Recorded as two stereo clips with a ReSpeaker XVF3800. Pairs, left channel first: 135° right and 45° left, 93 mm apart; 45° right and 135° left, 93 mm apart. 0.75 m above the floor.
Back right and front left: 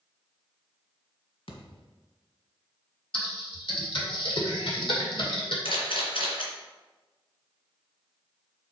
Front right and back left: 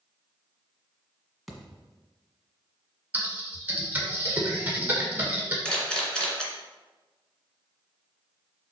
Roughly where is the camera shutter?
Behind right.